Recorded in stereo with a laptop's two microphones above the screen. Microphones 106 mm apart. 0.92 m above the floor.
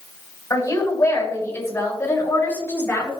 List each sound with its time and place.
0.5 s a woman speaking: 30° left (ahead or behind), 6 m; by 3.1 s 15° left (ahead or behind), 8.5 m